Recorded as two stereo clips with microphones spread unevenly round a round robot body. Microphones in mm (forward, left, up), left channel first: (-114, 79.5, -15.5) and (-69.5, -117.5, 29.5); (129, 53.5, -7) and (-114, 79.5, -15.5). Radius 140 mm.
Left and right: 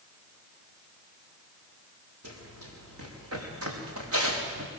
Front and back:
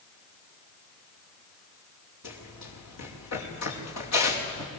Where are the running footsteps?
40° right, 6.5 m; by 4.7 s 45° right, 5 m.